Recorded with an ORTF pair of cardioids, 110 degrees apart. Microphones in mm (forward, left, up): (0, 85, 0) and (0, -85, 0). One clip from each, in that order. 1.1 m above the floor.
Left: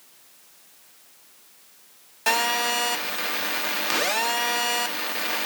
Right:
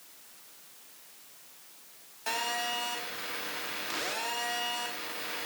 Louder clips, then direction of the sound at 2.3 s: Left 10 dB; 60° left.